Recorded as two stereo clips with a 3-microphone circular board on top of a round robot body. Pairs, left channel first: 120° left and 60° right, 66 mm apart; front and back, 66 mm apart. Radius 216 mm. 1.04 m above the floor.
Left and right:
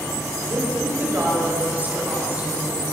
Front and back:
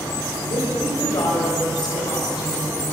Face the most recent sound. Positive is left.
turn(degrees=10)